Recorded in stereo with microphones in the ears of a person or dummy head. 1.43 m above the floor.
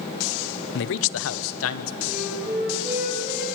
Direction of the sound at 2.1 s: 10° right (ahead or behind).